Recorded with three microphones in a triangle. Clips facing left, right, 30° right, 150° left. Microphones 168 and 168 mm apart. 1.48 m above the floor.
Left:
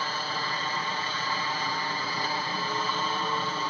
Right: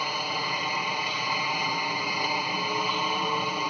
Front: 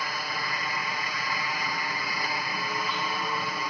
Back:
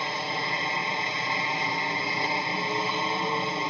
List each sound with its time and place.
0.0 s a helicopter: 160° right